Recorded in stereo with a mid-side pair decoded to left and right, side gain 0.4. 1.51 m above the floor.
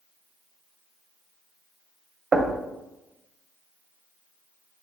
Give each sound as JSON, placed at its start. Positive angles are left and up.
{"t": 2.3, "sound": "knocking", "azimuth_deg": -40, "distance_m": 0.6}